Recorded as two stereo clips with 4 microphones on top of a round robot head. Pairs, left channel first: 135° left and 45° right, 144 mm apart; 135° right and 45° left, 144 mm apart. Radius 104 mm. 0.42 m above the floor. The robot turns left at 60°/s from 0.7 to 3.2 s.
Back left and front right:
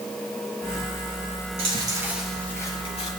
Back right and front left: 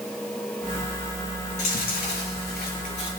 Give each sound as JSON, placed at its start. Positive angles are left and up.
{"t": 1.6, "sound": "chewing", "azimuth_deg": -95, "distance_m": 5.0}